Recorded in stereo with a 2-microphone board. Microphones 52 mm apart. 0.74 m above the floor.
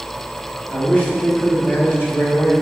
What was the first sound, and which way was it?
A man speaking, 25° left (ahead or behind).